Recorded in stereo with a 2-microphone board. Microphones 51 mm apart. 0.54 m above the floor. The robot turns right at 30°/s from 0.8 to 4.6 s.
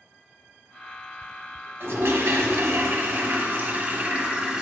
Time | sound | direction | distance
1.8 | a toilet flushing | 95° right | 1.2 m